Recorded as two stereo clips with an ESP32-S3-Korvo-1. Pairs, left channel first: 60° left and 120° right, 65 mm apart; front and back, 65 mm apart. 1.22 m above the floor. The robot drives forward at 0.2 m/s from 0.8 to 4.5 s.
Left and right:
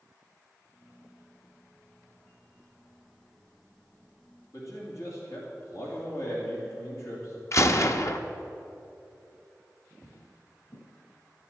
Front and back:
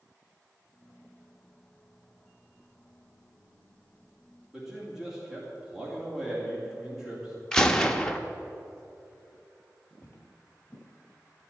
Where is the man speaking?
100° left, 2.5 m.